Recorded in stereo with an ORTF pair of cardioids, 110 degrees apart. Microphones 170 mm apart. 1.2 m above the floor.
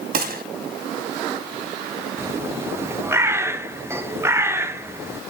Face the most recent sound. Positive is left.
turn(degrees=-15)